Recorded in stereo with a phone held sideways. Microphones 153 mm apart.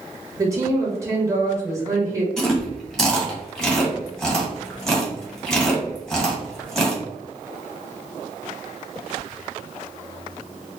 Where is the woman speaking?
20° right (ahead or behind), 1.5 m.